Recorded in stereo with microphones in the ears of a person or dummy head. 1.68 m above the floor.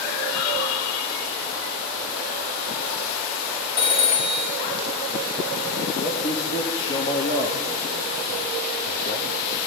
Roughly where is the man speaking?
Left.